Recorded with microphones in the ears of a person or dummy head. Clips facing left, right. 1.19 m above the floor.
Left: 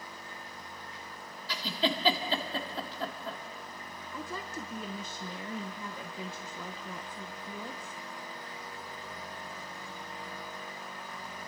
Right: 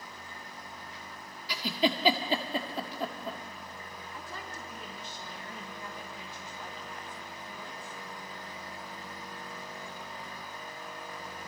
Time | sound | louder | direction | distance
1.5 | a giggle | right 3 dB | 15° right (ahead or behind) | 1.5 m
4.1 | a woman speaking | left 6 dB | 65° left (ahead or behind) | 1.1 m